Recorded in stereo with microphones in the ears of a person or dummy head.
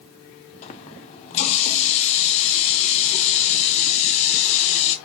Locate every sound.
0.6 s a running tap: 35° left (ahead or behind), 0.7 m